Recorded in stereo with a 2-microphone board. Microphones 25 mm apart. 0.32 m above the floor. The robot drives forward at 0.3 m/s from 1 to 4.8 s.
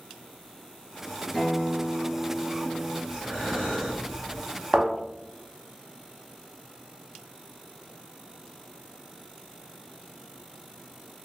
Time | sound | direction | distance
1.3 | a guitar | 20° left (ahead or behind) | 1.0 m
3.1 | breathing | 30° left (ahead or behind) | 1.9 m
4.7 | a thud | 5° right (ahead or behind) | 1.0 m